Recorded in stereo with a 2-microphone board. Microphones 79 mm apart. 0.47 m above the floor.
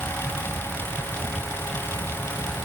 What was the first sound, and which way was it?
Only background noise.